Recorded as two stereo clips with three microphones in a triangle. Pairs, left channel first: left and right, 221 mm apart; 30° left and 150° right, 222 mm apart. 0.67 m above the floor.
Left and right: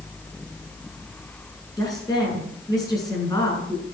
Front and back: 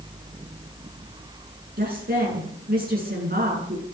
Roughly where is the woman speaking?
Behind.